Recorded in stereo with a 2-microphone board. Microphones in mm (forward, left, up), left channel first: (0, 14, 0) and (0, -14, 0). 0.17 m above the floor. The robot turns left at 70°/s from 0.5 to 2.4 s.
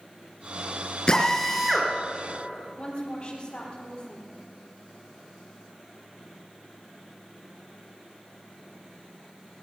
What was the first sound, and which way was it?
A drill, 30° left.